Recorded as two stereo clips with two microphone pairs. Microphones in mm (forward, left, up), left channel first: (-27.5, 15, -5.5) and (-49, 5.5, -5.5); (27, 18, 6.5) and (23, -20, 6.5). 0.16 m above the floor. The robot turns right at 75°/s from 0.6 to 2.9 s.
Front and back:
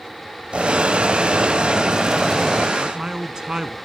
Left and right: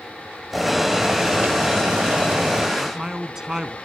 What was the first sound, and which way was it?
Boiling, 175° left.